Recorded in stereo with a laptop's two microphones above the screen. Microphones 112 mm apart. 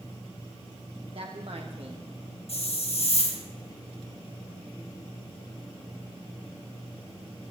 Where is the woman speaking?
60° right (ahead or behind), 1.3 m.